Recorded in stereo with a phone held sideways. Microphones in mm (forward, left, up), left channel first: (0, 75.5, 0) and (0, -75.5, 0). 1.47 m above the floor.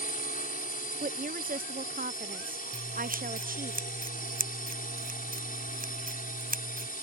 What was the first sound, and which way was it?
A drone, 80° left.